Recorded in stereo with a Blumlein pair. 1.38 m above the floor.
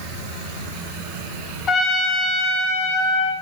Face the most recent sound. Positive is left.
turn(degrees=25)